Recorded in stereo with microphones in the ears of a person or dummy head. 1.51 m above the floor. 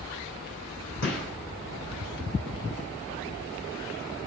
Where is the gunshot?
70° left (ahead or behind), 6 m.